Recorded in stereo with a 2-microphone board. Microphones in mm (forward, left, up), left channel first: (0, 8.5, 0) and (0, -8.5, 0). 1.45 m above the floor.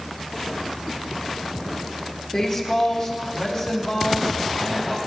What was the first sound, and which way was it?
A woman speaking, 35° left (ahead or behind).